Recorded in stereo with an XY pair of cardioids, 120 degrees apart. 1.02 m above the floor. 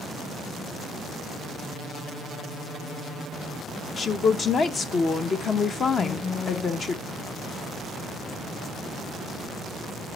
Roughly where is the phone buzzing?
Ahead.